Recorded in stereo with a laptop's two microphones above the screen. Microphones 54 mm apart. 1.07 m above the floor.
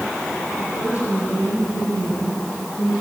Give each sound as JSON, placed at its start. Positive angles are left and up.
{"t": 0.6, "sound": "a woman speaking", "side_deg": 60, "distance_m": 9.5}